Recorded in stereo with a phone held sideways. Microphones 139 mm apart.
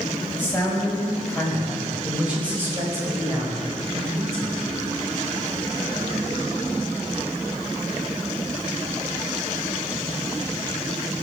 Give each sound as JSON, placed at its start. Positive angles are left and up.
{"t": 0.4, "sound": "a man speaking", "side_deg": 15, "distance_m": 6.0}